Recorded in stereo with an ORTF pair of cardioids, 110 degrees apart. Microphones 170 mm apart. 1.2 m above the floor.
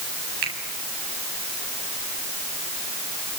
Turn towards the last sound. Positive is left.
turn(degrees=-70)